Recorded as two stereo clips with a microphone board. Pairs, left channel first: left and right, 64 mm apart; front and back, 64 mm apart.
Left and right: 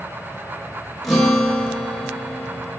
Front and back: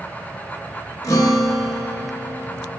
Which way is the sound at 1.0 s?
Straight ahead.